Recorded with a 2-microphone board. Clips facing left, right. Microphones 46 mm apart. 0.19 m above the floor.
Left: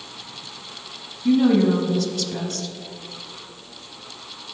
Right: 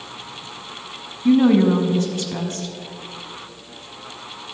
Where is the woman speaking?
30° right (ahead or behind), 1.2 m.